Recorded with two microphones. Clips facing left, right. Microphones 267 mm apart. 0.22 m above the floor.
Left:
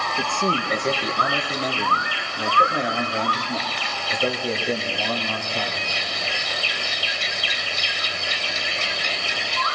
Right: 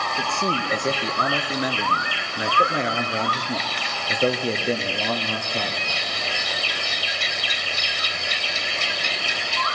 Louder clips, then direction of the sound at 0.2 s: Left 2 dB; 5° left (ahead or behind).